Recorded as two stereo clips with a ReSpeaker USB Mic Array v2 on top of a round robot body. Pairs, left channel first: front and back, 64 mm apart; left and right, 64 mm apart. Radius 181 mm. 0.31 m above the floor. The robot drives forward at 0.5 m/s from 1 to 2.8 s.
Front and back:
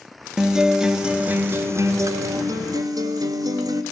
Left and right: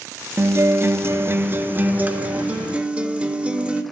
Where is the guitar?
105° right, 0.7 m; by 3.8 s 160° right, 1.2 m.